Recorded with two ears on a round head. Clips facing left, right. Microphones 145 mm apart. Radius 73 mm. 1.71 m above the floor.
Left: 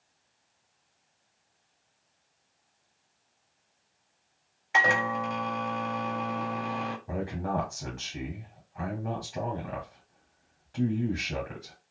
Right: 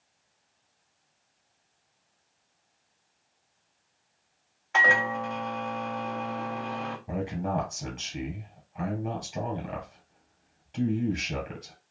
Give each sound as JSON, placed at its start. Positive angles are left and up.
{"t": 4.7, "sound": "a microwave", "side_deg": 15, "distance_m": 0.6}
{"t": 7.1, "sound": "a man speaking", "side_deg": -10, "distance_m": 2.0}